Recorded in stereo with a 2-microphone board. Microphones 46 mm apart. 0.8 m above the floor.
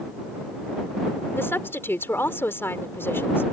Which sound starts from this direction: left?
A woman speaking, at 1.4 s.